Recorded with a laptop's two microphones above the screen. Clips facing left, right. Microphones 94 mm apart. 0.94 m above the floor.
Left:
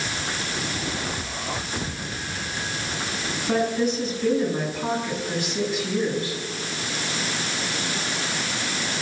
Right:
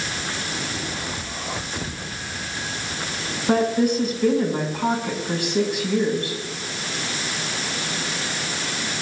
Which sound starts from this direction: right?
A woman speaking, at 3.5 s.